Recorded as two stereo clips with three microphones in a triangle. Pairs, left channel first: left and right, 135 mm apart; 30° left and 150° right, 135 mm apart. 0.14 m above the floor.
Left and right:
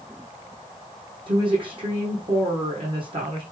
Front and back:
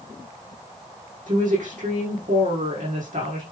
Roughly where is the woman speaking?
Behind right.